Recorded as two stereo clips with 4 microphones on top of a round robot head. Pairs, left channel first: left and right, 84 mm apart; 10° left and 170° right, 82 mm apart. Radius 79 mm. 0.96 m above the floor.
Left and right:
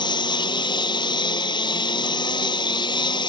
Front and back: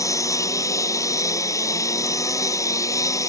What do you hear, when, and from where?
0.0 s a lawn mower: 60° left